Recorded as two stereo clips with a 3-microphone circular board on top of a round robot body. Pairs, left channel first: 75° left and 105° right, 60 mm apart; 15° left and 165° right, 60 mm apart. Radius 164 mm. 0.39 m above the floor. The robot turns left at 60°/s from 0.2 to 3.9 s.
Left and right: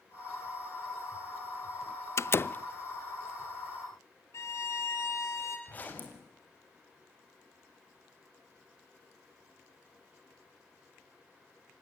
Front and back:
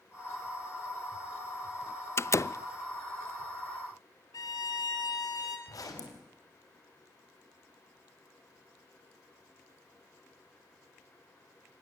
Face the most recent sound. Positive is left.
turn(degrees=15)